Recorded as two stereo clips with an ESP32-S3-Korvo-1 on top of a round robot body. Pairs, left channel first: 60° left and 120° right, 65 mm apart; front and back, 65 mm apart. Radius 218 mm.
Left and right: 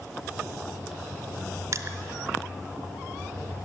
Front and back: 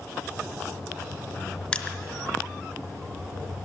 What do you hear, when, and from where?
1.7 s crushing: 80° right, 0.5 m